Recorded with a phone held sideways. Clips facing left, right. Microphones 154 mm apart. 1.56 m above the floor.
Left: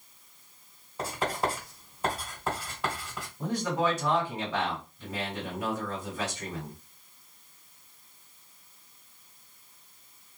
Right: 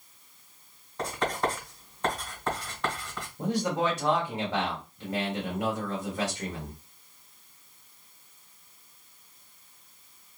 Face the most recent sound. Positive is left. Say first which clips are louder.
# right 1 dB
turn(degrees=-65)  # may be behind; listen again after turning